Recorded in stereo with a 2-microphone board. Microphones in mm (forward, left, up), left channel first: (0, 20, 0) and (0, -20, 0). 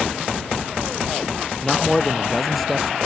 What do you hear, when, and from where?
1.6 s a man speaking: 10° left (ahead or behind); by 3.0 s centre (ahead or behind)